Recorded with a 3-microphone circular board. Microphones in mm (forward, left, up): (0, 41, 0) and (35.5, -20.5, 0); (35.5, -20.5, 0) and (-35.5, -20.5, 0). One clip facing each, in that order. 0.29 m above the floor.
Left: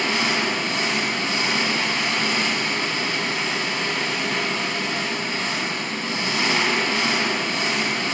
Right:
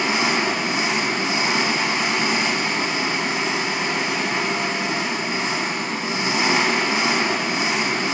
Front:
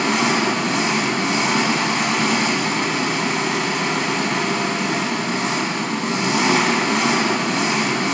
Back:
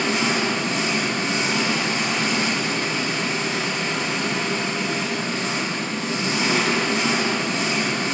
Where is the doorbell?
No doorbell in this recording.